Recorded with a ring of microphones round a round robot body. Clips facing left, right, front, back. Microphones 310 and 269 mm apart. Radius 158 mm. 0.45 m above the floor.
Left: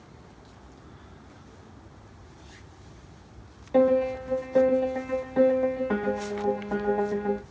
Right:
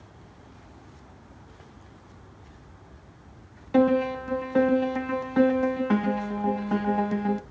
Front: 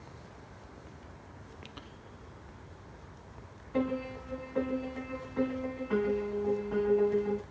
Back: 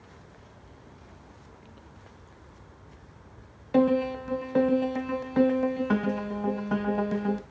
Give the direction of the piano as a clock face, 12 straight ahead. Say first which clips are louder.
Even, back 10 dB; 5 o'clock.